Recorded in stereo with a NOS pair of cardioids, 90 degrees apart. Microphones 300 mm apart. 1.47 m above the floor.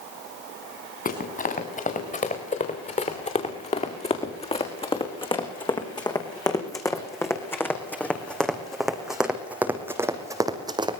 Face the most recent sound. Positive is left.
turn(degrees=-15)